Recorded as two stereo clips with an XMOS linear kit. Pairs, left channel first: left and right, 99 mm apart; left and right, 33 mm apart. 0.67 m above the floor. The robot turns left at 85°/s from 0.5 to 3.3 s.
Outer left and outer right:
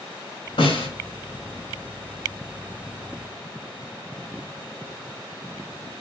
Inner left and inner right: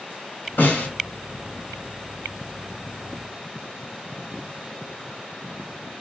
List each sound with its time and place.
0.6 s a snare drum: 80° left, 2 m; by 0.9 s 75° left (ahead or behind), 2 m